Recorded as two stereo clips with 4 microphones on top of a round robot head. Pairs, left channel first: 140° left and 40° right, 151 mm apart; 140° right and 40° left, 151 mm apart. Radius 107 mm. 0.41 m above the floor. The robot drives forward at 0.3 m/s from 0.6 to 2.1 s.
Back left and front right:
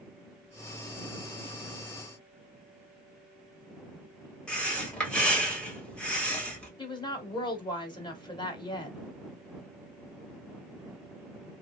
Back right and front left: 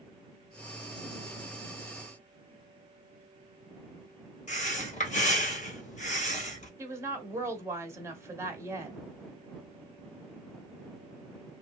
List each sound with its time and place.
4.5 s breathing: 140° right, 1.8 m
6.8 s a woman speaking: 100° left, 1.2 m